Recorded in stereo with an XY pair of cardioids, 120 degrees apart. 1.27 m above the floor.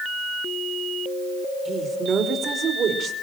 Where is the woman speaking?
30° right, 4.5 m; by 3.1 s 50° right, 4.5 m.